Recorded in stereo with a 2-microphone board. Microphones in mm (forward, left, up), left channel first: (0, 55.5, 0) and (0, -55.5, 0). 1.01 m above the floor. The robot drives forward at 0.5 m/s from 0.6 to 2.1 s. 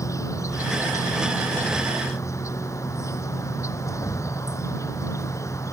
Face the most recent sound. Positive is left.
turn(degrees=25)  # may be behind; listen again after turning